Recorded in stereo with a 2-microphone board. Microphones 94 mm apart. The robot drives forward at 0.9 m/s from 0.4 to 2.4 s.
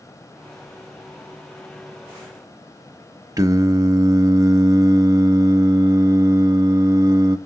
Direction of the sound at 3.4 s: 35° right (ahead or behind).